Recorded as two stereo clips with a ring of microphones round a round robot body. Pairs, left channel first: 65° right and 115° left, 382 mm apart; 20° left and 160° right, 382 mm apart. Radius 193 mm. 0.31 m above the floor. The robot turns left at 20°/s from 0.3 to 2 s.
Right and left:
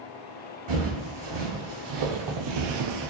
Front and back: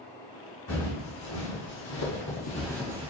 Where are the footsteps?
80° left, 1.4 m; by 3.1 s 135° left, 0.5 m.